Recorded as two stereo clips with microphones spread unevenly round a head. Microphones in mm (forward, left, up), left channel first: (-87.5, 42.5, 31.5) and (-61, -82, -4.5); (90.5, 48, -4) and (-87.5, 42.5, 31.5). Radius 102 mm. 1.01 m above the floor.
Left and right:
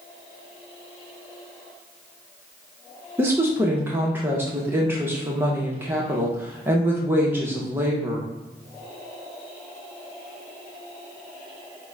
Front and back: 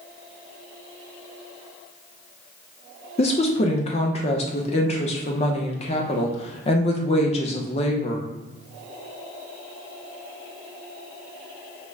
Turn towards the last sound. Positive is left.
turn(degrees=-25)